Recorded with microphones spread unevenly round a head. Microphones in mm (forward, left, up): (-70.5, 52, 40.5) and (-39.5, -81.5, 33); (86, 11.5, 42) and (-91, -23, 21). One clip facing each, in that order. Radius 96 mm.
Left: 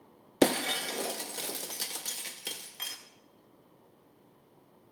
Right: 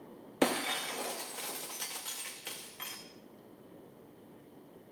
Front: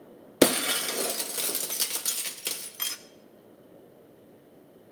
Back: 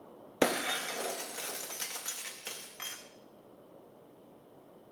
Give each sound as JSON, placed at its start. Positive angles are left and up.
{"t": 0.4, "sound": "breaking glass", "azimuth_deg": 45, "distance_m": 0.6}